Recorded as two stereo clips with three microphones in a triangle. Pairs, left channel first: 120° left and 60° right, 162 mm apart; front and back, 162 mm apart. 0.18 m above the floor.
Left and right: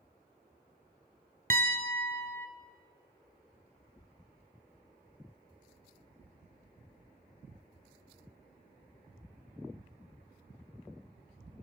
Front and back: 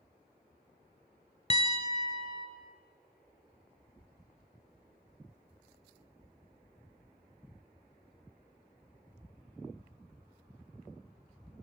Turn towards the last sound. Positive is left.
turn(degrees=-45)